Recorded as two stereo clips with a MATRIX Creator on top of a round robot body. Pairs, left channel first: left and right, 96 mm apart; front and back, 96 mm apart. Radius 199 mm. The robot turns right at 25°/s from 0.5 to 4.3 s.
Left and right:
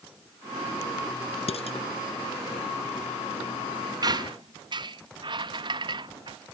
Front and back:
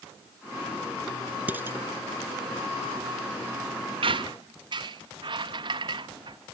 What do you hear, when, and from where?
1.5 s dishes clattering: 105° left; by 1.8 s 115° left
4.0 s a squeak: 145° right; by 6.4 s 135° right